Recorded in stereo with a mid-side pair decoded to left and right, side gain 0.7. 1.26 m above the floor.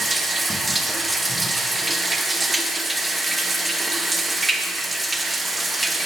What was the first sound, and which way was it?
Running water, 10° right.